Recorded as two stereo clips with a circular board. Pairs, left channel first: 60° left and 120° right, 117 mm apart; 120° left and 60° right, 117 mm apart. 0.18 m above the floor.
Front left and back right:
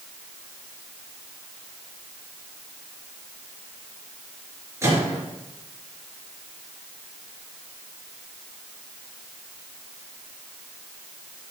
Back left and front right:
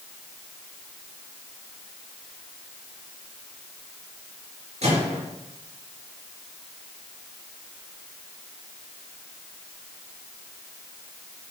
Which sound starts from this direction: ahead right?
A microwave, at 4.8 s.